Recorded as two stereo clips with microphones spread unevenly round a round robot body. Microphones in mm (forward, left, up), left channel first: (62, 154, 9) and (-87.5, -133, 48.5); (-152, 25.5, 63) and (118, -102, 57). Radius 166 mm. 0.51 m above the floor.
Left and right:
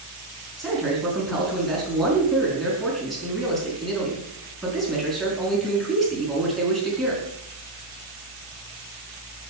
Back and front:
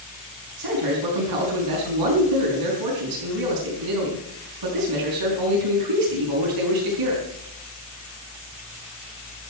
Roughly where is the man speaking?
Ahead right.